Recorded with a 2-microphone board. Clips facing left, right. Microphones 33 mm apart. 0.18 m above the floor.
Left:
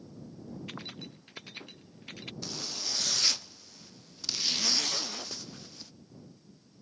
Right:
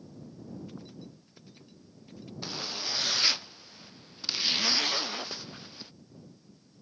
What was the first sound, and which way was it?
Keys jangling, 75° left (ahead or behind).